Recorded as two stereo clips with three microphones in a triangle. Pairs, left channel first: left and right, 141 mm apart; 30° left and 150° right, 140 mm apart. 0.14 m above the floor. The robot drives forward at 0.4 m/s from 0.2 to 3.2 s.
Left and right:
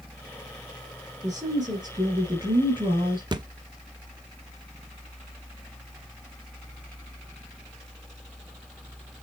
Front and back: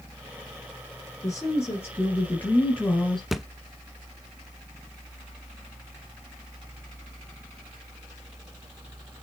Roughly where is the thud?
Ahead right.